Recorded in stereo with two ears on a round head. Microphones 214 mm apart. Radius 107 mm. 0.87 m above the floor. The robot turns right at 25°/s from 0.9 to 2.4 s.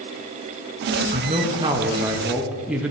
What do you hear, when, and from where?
1.1 s a man speaking: 40° right, 1.0 m; by 2.9 s 5° right, 1.0 m